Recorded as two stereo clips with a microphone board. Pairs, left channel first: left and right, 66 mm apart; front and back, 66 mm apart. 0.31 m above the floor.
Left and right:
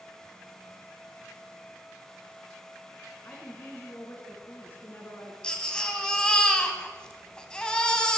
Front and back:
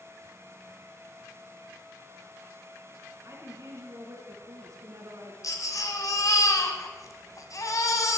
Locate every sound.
3.2 s a woman speaking: 150° left, 3 m
5.4 s a baby crying: 15° left, 1.8 m